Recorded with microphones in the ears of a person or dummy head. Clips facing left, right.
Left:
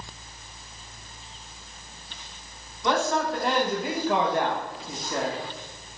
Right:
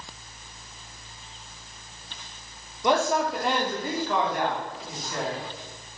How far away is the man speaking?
About 1.1 m.